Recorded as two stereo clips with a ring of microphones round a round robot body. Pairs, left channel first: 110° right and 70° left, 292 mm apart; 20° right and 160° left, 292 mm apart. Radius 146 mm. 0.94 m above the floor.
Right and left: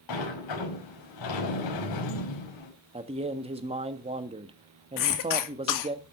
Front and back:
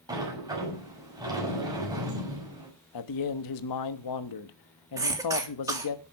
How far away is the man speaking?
About 1.2 m.